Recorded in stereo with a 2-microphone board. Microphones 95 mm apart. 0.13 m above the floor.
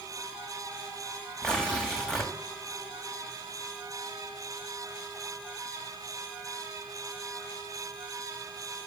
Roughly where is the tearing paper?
Centre.